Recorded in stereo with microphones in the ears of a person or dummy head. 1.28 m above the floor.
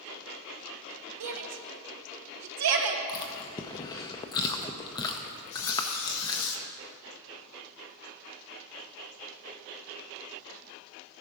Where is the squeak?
75° left (ahead or behind), 1.5 m.